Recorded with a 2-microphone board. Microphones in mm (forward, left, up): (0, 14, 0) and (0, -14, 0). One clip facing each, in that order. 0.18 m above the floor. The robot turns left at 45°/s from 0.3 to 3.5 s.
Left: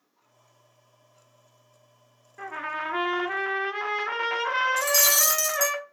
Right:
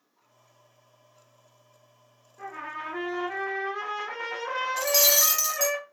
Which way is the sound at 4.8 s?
15° right (ahead or behind).